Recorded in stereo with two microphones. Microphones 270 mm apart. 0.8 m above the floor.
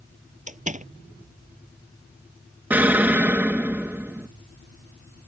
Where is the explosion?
5° right (ahead or behind).